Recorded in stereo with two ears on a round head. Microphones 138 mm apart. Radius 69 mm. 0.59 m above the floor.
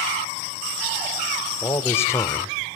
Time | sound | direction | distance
1.6 | a man speaking | 15° left (ahead or behind) | 2 m